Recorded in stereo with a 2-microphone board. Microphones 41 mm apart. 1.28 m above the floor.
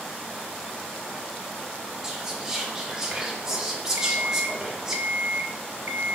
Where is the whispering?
15° right (ahead or behind), 3 m.